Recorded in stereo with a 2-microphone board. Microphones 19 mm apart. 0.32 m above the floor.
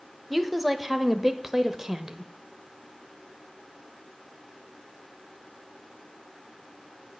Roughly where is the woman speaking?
Centre.